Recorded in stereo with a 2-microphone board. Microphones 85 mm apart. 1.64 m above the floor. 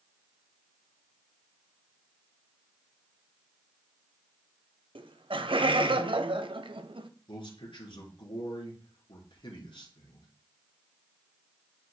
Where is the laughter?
85° right, 0.9 m.